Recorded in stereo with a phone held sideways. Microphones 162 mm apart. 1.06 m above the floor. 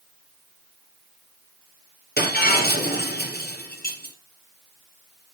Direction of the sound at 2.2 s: 75° left (ahead or behind).